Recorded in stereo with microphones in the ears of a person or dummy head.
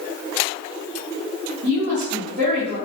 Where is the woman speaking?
70° right (ahead or behind), 1.5 m.